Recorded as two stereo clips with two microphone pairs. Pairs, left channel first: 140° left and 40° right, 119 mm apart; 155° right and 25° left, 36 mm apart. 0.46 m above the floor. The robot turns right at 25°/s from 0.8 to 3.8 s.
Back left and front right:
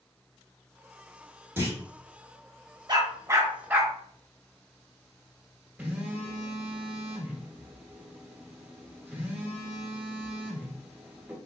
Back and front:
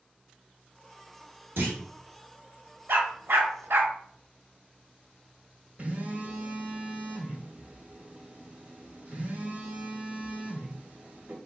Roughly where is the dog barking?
Ahead.